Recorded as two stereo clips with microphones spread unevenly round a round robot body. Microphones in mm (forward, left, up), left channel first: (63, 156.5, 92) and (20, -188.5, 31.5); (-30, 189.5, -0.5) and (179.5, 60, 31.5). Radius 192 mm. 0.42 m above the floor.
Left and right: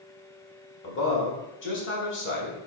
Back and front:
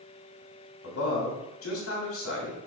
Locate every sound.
0.8 s a man speaking: 145° left, 3 m